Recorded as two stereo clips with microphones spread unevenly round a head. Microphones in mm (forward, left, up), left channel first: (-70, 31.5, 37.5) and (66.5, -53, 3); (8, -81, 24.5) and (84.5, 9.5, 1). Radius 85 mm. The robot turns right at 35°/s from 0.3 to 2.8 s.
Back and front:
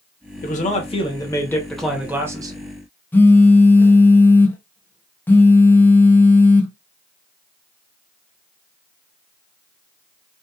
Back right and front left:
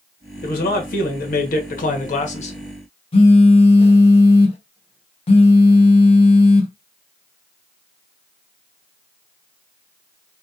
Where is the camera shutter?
I don't hear a camera shutter.